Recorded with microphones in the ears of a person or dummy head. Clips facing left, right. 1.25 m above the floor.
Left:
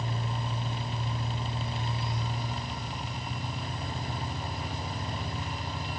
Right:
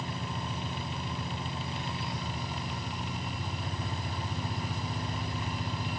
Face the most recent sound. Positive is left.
turn(degrees=-50)  # may be behind; listen again after turning